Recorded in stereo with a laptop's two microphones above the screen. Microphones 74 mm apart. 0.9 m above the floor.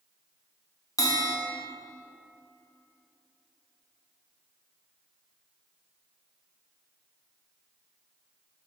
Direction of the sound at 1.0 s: 55° left (ahead or behind).